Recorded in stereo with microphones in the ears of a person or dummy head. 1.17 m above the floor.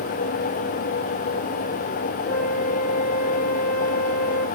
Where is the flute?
75° left (ahead or behind), 2.5 m.